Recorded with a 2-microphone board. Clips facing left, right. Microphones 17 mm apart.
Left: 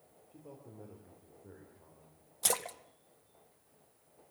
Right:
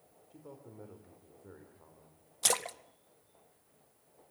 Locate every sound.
0.3 s a man speaking: 55° right (ahead or behind), 3 m
2.4 s a splash: 20° right (ahead or behind), 0.7 m